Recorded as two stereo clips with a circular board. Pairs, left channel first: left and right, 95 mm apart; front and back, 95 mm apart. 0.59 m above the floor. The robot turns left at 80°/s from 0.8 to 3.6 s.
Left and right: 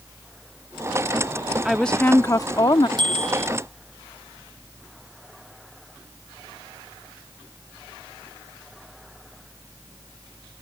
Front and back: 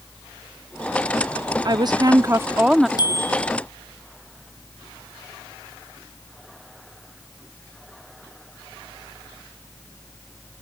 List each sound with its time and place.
1.6 s a woman speaking: 175° right; by 2.9 s 90° left
3.0 s a bicycle bell: 50° right; by 3.5 s 90° right